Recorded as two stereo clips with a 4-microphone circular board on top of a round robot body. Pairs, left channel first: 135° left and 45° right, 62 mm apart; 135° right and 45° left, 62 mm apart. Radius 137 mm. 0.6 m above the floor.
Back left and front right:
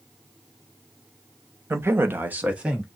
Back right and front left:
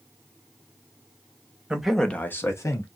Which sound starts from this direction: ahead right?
A man speaking, at 1.7 s.